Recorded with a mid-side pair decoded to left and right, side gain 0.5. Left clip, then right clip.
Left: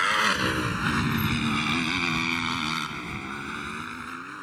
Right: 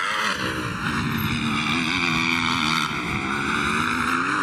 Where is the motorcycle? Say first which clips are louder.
Left 1 dB; 5° left; by 4.4 s 75° right.